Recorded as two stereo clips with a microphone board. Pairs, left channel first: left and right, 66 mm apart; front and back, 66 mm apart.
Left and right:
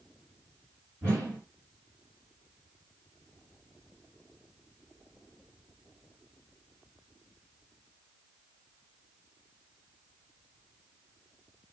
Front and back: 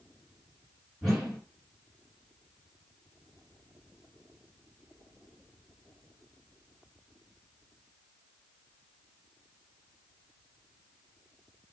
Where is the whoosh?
100° right, 1.9 m.